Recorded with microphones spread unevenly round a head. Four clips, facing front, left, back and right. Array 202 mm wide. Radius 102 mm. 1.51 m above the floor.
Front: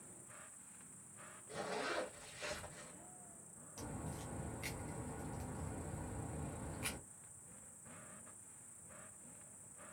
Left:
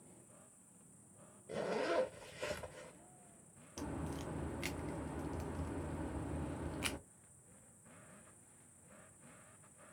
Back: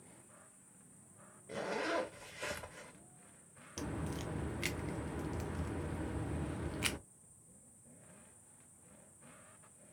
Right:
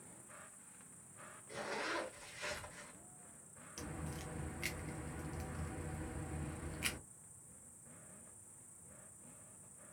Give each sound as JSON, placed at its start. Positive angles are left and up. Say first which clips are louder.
{"t": 0.0, "sound": "an insect", "louder": "right 3 dB, front 1 dB", "azimuth_deg": -30, "distance_m": 0.9}
{"t": 1.5, "sound": "a zipper", "louder": "left 6 dB, back 5 dB", "azimuth_deg": 120, "distance_m": 0.5}
{"t": 3.8, "sound": "a crack", "louder": "left 4 dB, back 7 dB", "azimuth_deg": 165, "distance_m": 0.6}